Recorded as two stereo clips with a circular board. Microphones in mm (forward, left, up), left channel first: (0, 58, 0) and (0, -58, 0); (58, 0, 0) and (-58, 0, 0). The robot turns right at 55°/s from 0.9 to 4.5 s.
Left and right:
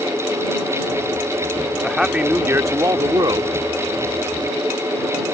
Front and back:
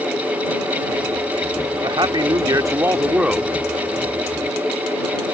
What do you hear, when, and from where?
1.8 s a man speaking: 175° left; by 3.5 s 90° right